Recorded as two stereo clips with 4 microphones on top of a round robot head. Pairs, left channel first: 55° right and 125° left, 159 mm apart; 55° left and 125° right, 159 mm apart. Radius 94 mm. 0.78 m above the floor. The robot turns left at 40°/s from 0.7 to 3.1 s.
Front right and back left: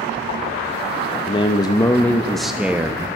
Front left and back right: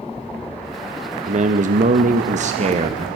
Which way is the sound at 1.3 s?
100° right.